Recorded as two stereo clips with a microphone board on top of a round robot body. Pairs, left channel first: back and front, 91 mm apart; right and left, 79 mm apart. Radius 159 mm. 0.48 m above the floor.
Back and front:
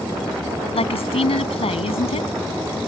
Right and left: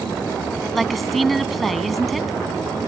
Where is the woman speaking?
Straight behind.